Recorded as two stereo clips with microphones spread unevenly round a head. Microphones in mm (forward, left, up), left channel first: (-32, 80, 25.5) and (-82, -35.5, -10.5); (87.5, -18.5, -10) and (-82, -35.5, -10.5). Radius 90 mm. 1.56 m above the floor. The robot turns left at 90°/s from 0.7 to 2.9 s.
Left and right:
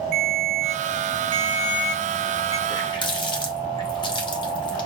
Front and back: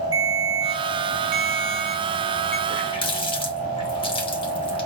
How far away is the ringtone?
About 2 m.